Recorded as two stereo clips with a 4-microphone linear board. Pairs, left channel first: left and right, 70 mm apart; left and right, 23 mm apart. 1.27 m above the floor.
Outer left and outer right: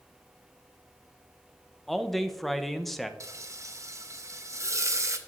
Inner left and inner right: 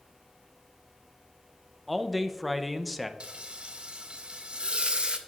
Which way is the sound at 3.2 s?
45° right (ahead or behind).